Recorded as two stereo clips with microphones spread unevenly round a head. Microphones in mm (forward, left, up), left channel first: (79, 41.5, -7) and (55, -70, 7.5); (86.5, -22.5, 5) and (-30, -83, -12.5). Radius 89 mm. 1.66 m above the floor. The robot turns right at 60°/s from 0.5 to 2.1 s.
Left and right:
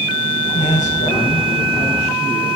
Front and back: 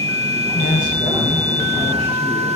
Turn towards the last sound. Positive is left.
turn(degrees=150)